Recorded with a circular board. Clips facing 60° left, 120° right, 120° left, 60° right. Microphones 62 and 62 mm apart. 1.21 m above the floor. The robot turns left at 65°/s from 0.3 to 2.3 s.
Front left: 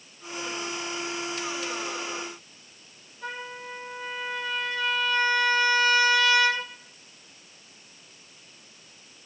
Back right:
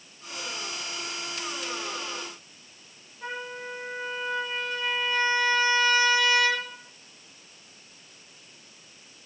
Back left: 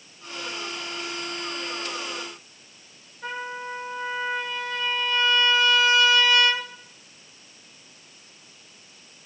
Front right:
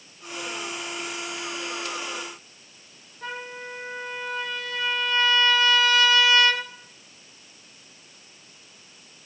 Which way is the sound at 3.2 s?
55° right.